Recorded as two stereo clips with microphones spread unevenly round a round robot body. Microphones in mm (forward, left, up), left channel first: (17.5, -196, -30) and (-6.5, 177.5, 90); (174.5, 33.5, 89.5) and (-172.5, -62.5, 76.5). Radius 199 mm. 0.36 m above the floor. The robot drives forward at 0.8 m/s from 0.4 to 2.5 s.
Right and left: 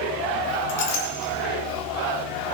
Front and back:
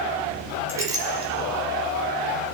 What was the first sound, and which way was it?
A clink, 80° right.